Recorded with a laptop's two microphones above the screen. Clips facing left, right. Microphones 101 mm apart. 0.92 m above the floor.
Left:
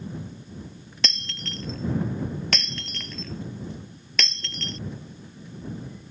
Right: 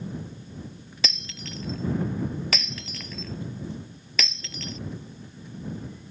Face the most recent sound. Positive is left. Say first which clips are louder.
# left 1 dB
turn(degrees=0)  # may be behind; listen again after turning